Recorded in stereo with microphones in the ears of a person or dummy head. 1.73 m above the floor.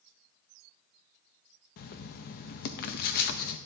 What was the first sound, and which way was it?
Writing, 55° left (ahead or behind).